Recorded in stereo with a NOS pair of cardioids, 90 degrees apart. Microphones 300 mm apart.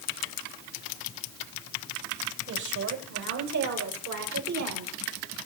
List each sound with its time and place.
2.5 s a woman speaking: 70° right, 8 m; by 4.9 s 75° right, 7.5 m